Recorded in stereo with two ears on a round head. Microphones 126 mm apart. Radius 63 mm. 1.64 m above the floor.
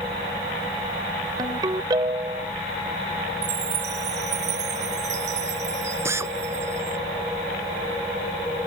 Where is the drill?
20° right (ahead or behind).